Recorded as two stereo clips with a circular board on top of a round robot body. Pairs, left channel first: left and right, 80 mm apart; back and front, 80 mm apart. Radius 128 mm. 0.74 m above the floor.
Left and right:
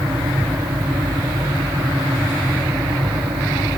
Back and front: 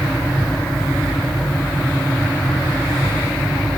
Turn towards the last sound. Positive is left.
No sound to turn to.